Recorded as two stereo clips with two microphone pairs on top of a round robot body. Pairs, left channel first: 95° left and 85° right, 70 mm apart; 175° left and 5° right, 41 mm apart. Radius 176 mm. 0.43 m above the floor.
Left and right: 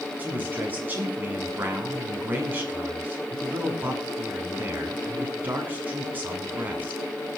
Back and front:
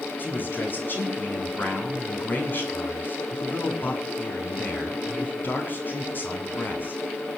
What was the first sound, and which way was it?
A man speaking, 150° right.